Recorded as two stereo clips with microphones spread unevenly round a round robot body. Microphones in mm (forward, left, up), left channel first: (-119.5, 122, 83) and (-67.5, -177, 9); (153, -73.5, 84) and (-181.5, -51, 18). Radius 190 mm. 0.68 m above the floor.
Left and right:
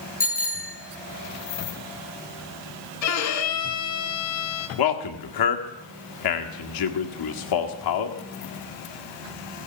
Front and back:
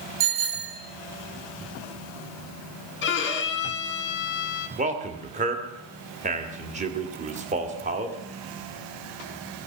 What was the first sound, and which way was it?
A bicycle bell, 165° left.